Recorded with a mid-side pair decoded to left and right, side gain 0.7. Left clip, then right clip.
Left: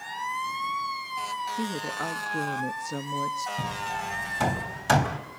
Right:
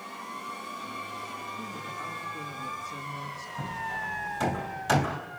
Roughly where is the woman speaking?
Ahead left.